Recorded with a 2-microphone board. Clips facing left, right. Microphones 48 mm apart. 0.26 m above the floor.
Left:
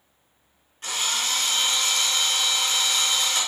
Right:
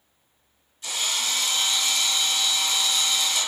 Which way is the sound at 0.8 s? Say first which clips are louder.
Left 1 dB; 40° left (ahead or behind).